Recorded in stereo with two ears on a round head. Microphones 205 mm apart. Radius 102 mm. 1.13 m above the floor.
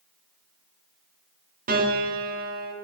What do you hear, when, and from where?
1.7 s a piano: 40° right (ahead or behind), 2.5 m